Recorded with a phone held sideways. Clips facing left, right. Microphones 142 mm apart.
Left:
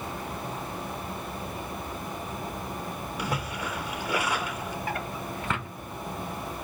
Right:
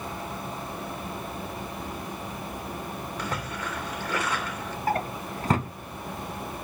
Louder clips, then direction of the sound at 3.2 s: Left 2 dB; 10° left (ahead or behind).